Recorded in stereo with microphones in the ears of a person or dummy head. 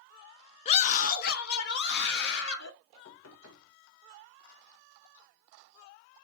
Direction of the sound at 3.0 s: 80° left.